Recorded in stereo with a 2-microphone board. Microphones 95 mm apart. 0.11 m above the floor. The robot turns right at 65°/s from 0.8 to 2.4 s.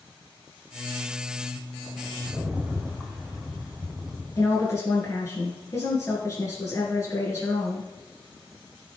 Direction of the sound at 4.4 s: 35° left (ahead or behind).